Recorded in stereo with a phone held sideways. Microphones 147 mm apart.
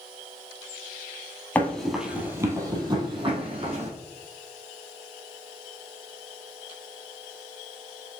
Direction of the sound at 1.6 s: 10° left (ahead or behind).